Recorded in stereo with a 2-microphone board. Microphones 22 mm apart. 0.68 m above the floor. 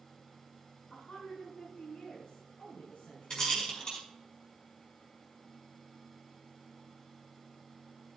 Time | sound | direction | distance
0.9 | a woman speaking | 75° left (ahead or behind) | 6 m
3.3 | a rattle | 30° left (ahead or behind) | 5.5 m